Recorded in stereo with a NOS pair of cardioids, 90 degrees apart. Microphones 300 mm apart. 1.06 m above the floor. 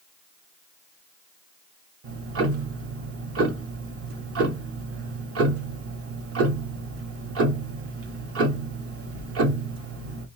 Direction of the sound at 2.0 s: 50° right.